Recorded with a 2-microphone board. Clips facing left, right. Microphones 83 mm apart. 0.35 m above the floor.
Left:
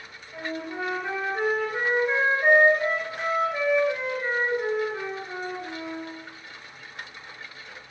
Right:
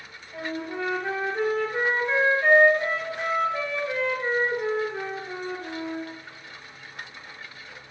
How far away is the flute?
About 3 m.